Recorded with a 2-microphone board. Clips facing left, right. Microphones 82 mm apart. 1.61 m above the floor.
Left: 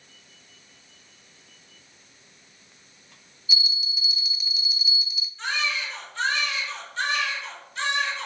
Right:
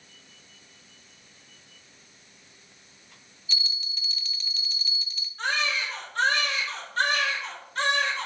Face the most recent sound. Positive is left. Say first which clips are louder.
# right 1 dB
turn(degrees=-55)  # may be behind; listen again after turning